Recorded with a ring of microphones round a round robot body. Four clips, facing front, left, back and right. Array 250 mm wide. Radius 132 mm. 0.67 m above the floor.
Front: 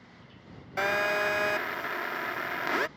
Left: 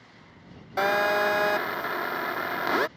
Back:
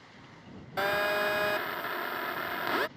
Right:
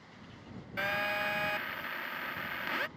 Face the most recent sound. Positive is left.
turn(degrees=85)